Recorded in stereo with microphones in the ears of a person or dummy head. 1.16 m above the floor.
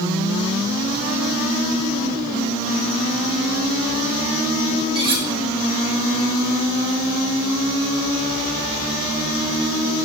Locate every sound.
5.0 s cutlery clinking: 25° right (ahead or behind), 1.5 m